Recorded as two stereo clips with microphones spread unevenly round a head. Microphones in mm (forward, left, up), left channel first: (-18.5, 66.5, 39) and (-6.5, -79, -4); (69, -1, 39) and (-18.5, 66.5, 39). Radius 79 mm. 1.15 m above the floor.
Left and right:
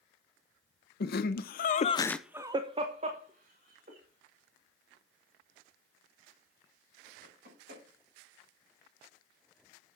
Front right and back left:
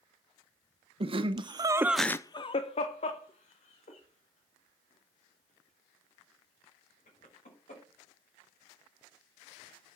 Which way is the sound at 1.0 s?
115° left.